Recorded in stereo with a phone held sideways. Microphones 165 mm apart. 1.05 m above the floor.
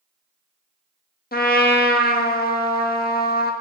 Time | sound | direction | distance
1.3 | a trumpet | 65° left (ahead or behind) | 1.4 m